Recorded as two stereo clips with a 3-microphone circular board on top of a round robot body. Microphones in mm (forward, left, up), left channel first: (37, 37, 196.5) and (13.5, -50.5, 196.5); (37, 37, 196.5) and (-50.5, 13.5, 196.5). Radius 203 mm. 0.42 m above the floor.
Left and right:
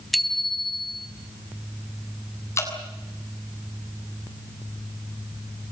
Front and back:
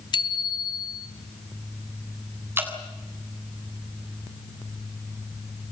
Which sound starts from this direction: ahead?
A bicycle bell, at 0.1 s.